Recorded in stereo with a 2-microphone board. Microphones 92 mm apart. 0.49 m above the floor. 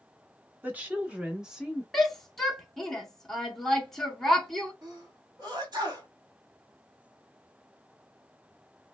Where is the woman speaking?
20° right (ahead or behind), 0.9 m; by 1.8 s centre (ahead or behind), 0.8 m.